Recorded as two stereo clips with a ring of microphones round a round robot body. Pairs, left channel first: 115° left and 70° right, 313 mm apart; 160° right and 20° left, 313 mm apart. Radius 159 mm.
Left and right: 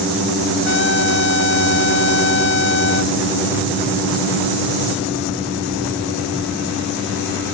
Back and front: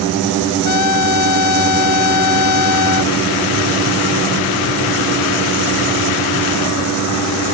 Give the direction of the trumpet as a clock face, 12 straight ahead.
6 o'clock.